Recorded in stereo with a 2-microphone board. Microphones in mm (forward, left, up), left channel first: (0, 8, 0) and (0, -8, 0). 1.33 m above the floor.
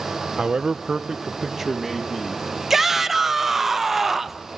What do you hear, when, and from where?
0.4 s a man speaking: 70° right (ahead or behind), 0.8 m; by 2.4 s centre (ahead or behind), 2.5 m
2.7 s a shout: 15° right (ahead or behind), 1.5 m